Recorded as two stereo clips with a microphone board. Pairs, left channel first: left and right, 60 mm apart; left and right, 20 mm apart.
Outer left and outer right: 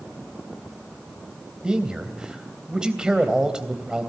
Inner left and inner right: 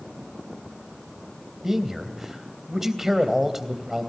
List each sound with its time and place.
1.6 s a man speaking: 15° right (ahead or behind), 2.5 m